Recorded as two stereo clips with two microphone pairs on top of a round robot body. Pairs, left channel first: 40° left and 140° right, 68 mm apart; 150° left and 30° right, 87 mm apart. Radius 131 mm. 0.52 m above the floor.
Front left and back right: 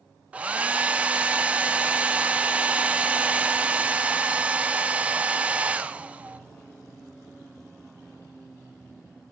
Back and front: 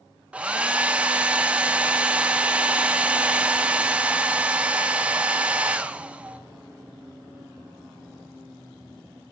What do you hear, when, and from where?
0.3 s a hair dryer: 95° right, 0.9 m